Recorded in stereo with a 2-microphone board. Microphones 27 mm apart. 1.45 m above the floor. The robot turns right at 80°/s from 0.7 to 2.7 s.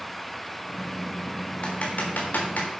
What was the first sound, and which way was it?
Typing on a keyboard, 45° left (ahead or behind).